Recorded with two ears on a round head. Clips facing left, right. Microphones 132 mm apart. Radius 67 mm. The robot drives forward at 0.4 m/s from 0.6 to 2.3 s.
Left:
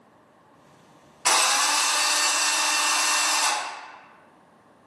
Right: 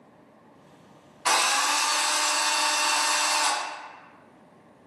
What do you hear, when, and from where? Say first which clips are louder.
1.2 s a drill: left 1 dB; 35° left (ahead or behind), 0.7 m; by 3.6 s 20° left (ahead or behind), 1.1 m